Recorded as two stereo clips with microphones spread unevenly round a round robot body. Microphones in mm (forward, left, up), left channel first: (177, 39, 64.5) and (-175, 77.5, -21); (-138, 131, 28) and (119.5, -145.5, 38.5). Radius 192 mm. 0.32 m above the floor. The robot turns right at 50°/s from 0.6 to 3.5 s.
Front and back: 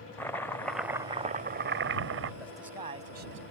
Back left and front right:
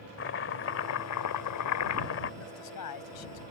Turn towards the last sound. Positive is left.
turn(degrees=140)